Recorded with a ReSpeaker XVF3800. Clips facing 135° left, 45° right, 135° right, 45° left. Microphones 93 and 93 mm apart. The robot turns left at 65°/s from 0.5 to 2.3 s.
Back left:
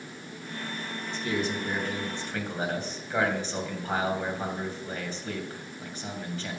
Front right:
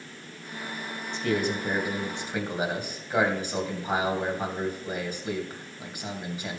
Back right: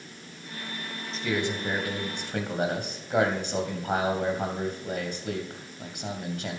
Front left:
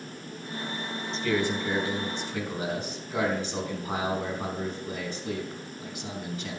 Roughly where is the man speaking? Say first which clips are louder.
Front right 3 dB, front left 2 dB; ahead right.